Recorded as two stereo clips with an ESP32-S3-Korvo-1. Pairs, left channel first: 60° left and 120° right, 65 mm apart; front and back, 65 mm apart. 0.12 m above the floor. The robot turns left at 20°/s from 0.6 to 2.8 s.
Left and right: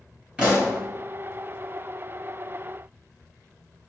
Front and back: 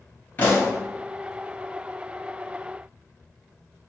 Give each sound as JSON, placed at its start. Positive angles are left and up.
{"t": 0.4, "sound": "a pop", "azimuth_deg": -55, "distance_m": 2.0}